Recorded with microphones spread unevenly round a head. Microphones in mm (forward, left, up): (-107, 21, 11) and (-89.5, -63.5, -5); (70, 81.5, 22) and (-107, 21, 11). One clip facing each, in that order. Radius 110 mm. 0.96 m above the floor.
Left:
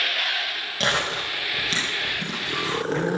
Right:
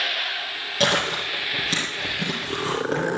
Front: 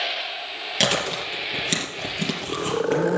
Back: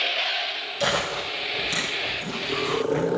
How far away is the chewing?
About 4 m.